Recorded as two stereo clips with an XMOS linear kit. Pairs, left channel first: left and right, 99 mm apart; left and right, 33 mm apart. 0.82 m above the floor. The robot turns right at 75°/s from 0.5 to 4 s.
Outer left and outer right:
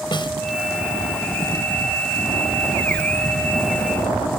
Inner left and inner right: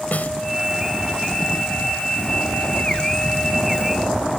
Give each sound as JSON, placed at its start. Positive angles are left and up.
{"t": 0.1, "sound": "a snare drum", "side_deg": 55}